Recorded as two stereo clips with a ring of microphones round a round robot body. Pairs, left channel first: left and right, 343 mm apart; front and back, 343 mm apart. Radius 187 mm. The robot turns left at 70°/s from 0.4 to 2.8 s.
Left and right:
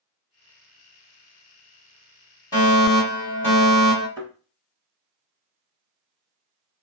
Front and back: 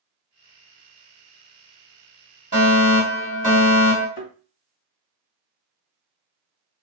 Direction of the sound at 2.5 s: 35° left.